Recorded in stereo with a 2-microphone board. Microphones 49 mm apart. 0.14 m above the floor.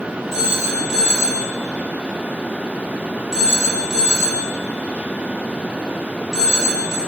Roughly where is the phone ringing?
Centre.